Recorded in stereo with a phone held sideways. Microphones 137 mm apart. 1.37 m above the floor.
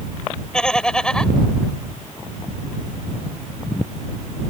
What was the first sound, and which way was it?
Laughter, 5° left (ahead or behind).